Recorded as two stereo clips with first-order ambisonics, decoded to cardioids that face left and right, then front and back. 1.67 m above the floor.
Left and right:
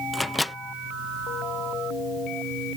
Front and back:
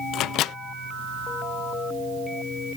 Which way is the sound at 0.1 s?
10° left.